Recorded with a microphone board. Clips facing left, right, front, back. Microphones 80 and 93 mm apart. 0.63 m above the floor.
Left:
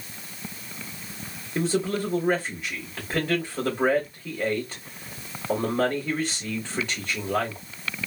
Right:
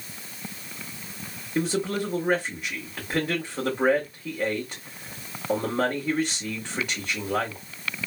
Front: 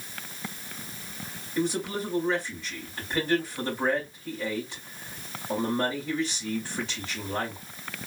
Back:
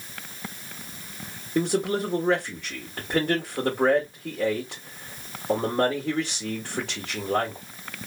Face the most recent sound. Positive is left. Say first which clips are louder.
# left 1 dB, back 5 dB
turn(degrees=-170)